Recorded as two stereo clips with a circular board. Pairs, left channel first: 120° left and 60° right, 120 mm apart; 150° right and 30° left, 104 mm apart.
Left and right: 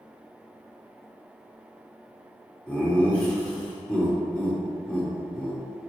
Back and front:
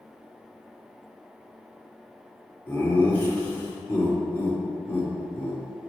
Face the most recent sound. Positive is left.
turn(degrees=180)